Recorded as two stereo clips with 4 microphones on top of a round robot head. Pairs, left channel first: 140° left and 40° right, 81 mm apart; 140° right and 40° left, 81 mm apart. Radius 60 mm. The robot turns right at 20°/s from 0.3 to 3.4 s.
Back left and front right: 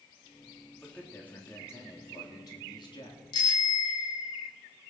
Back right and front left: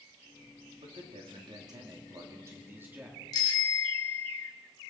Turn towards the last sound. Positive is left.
turn(degrees=180)